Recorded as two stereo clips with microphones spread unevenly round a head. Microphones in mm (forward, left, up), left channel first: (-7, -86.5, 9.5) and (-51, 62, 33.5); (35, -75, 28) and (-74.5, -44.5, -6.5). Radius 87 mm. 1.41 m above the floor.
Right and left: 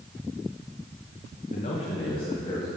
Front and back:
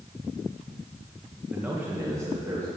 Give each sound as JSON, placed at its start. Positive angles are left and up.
{"t": 1.5, "sound": "a man speaking", "azimuth_deg": -115, "distance_m": 1.3}